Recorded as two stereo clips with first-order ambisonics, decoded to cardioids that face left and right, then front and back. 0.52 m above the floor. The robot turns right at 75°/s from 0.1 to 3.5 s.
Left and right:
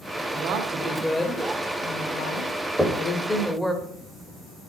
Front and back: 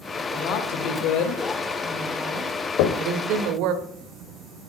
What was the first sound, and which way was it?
A woman speaking, 55° right.